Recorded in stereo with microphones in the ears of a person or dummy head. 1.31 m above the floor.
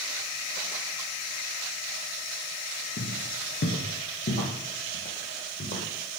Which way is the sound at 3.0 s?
50° left (ahead or behind).